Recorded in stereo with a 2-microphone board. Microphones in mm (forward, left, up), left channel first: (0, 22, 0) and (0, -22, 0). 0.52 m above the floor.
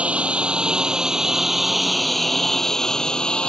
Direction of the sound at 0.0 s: 35° right (ahead or behind).